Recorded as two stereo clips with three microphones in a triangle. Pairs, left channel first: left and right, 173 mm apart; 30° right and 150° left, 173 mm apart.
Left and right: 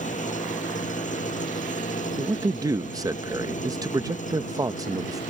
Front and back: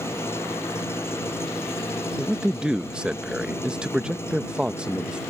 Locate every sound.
0.0 s an engine running: 45° left
2.2 s a man speaking: 130° right